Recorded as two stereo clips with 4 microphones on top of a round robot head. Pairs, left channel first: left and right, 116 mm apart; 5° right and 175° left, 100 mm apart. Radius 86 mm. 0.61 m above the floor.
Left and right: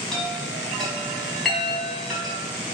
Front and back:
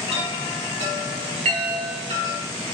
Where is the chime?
175° left, 4 m.